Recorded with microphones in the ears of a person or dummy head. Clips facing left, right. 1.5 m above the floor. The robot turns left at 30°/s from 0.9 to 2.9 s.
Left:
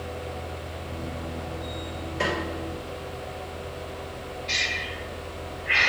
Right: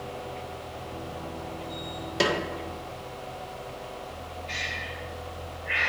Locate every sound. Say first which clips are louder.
2.2 s a snare drum: right 3 dB; 60° right (ahead or behind), 1.3 m; by 2.4 s 65° right (ahead or behind), 1.3 m
4.5 s breathing: left 3 dB; 55° left (ahead or behind), 0.6 m